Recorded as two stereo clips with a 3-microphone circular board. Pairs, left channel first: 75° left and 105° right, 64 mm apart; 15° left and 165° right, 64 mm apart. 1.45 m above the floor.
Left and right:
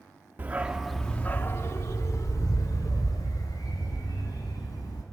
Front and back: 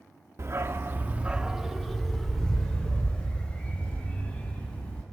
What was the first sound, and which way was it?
A dog barking, 150° right.